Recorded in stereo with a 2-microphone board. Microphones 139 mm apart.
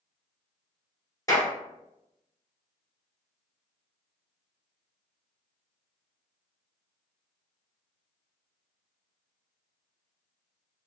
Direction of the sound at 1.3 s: 25° left (ahead or behind).